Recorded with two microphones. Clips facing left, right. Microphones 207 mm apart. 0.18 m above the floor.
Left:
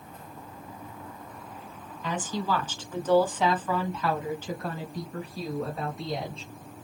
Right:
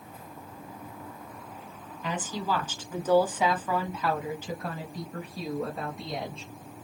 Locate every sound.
2.0 s a woman speaking: 10° right (ahead or behind), 1.7 m; by 6.5 s centre (ahead or behind), 2.5 m